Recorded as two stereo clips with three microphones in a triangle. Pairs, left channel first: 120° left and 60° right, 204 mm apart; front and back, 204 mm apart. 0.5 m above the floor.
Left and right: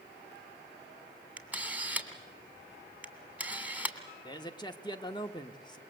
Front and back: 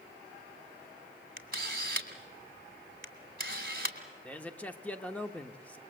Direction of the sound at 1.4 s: 145° right.